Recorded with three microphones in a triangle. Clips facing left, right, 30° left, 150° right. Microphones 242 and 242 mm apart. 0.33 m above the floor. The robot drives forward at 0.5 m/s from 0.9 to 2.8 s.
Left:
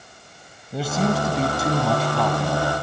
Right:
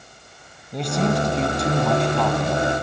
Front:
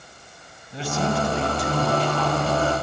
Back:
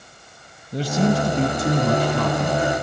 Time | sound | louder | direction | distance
0.7 | a man speaking | right 1 dB, back 5 dB | 175° left | 1.7 m